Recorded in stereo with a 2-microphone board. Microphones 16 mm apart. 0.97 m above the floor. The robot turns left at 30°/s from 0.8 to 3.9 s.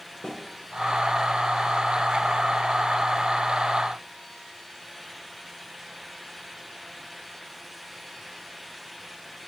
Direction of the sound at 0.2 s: 55° left (ahead or behind).